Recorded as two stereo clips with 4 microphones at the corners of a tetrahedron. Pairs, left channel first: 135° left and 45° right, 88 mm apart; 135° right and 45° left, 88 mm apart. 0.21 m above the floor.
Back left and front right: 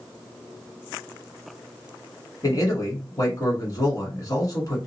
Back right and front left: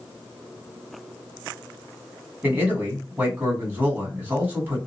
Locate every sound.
2.4 s a man speaking: 110° left, 1.4 m